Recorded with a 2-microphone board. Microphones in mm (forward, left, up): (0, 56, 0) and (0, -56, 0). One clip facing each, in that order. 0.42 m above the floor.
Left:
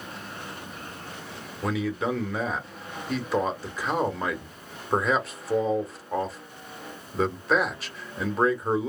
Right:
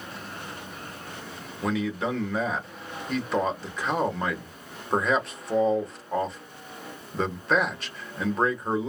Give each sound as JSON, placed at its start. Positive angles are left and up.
{"t": 1.6, "sound": "a man speaking", "side_deg": 0, "distance_m": 1.1}